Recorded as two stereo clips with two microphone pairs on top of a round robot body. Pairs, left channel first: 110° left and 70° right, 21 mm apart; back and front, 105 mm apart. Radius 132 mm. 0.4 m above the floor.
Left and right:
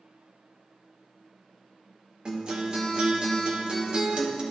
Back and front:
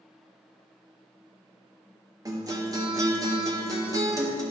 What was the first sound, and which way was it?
A guitar, 45° right.